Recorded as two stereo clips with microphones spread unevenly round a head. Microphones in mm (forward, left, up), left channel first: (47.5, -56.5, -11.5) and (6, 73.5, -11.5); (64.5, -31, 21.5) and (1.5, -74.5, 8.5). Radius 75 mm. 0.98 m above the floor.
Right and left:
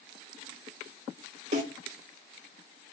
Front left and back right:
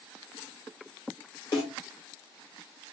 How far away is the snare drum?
About 1.7 m.